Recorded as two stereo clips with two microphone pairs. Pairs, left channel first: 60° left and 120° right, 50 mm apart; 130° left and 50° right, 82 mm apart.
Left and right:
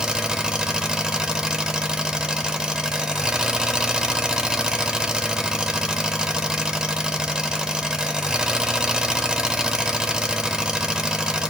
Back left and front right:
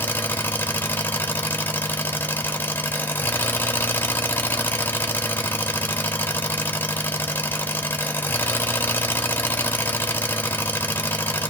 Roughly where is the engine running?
Behind.